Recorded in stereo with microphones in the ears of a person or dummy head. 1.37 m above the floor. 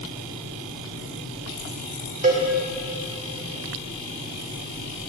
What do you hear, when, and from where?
2.2 s a cowbell: 40° right (ahead or behind), 1.8 m